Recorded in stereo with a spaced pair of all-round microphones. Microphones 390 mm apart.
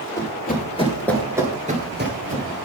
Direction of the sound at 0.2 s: 30° left (ahead or behind).